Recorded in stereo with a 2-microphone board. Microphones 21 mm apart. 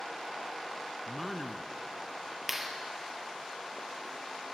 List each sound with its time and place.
1.1 s a man speaking: 5° right (ahead or behind), 1.3 m
2.5 s a clap: 15° right (ahead or behind), 3 m